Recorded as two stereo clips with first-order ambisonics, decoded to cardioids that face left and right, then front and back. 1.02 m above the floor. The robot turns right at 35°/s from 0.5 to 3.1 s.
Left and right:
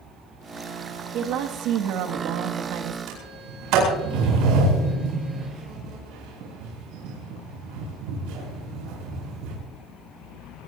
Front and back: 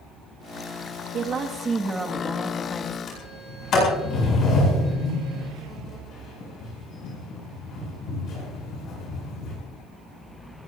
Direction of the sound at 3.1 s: 60° right.